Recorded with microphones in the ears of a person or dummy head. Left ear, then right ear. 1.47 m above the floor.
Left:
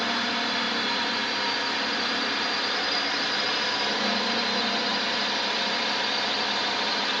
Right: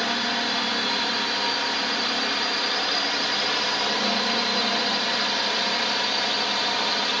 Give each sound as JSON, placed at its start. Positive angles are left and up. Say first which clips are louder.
{"t": 0.0, "sound": "a drone", "louder": "right 2 dB", "side_deg": -5}